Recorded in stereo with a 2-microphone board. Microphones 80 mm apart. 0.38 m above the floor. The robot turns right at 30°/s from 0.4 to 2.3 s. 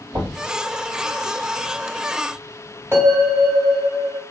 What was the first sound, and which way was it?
Knocking, 60° right (ahead or behind).